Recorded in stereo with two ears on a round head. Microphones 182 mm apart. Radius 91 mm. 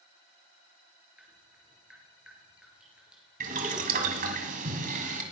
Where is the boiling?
45° right (ahead or behind), 1.9 m.